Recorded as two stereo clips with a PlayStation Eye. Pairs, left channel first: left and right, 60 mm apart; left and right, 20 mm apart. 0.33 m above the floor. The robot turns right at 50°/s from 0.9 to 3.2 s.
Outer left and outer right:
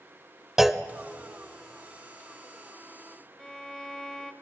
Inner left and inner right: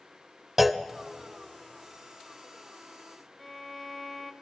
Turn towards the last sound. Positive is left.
turn(degrees=10)  # may be behind; listen again after turning